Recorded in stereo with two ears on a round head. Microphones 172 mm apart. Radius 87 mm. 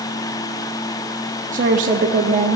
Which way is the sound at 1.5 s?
45° right (ahead or behind).